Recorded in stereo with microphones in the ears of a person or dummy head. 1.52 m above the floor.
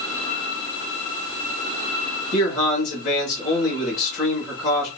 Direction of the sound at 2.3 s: 45° left (ahead or behind).